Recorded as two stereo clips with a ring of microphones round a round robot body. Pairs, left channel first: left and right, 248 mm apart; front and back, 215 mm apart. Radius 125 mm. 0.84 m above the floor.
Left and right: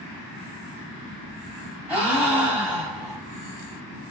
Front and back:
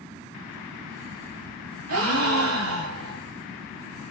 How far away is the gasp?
About 2 m.